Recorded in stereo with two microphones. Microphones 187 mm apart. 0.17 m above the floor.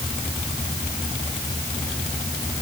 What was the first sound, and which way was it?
Only background noise.